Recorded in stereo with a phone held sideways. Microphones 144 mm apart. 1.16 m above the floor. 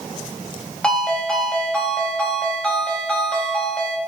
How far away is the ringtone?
About 3 m.